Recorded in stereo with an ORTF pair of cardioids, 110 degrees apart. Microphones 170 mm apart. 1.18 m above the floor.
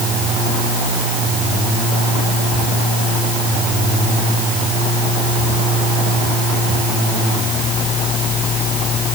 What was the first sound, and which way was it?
Only background noise.